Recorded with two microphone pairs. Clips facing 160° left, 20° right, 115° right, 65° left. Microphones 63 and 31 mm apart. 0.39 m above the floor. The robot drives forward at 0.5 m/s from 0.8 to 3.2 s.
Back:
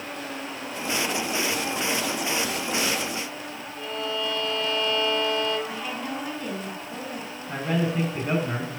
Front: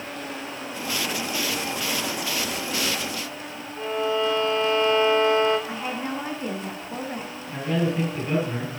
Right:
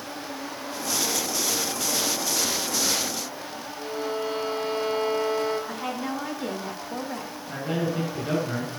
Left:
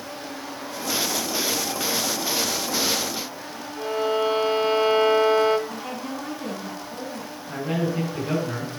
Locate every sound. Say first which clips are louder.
3.8 s a violin: front 6 dB, left 7 dB; 40° left, 1.4 m
5.7 s a woman speaking: front 2 dB, right 2 dB; 80° right, 4.5 m
7.5 s a man speaking: front 1 dB, left 2 dB; 160° left, 5.5 m